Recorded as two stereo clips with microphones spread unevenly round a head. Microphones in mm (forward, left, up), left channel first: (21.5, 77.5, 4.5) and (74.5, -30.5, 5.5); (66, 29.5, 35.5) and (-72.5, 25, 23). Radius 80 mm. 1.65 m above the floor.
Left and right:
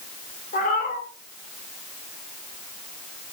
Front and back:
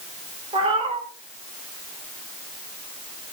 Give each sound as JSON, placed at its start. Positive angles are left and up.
{"t": 0.5, "sound": "a cat meowing", "azimuth_deg": 130, "distance_m": 3.5}